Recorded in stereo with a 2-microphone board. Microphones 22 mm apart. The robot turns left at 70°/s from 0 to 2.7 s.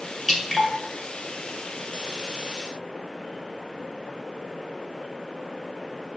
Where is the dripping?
20° left (ahead or behind), 1.9 m; by 0.7 s 45° left (ahead or behind), 1.9 m.